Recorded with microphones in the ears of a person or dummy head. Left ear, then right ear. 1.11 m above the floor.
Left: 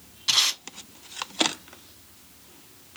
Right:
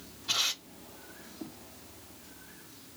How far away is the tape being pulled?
About 2.0 m.